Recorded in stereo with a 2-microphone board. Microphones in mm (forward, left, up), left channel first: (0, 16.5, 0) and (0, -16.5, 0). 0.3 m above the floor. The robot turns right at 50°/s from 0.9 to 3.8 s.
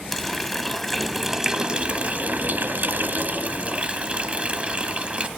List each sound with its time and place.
0.1 s a running tap: 170° left, 1.0 m; by 5.3 s 45° right, 1.0 m